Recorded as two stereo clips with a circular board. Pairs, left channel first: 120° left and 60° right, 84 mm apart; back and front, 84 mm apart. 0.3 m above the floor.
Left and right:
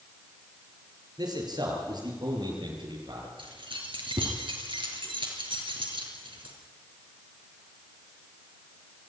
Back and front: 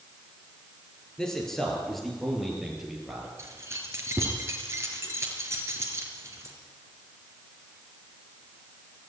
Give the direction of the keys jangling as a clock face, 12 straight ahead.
2 o'clock.